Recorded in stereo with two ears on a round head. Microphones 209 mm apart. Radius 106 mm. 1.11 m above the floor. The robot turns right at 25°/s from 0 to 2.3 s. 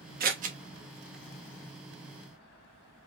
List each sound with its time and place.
0.2 s scissors: 40° right (ahead or behind), 0.7 m; by 0.6 s 30° right (ahead or behind), 0.7 m